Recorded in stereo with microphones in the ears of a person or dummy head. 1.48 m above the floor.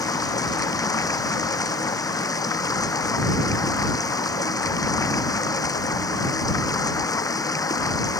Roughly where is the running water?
Centre.